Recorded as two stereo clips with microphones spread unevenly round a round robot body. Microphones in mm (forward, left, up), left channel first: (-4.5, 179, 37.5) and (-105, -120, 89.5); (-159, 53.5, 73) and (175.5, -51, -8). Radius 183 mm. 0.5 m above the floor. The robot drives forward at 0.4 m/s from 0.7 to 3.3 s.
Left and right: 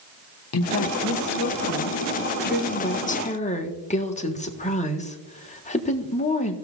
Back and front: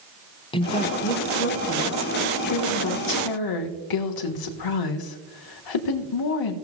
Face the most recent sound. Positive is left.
turn(degrees=135)